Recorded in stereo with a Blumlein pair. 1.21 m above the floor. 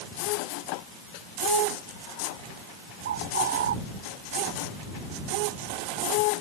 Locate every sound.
3.0 s a bird: 60° right